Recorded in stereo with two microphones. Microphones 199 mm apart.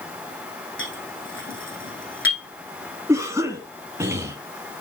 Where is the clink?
75° left (ahead or behind), 5 m.